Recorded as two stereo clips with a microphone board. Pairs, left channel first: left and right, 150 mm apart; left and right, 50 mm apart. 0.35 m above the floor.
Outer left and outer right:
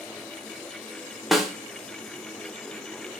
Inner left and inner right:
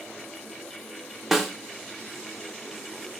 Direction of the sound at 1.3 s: Centre (ahead or behind).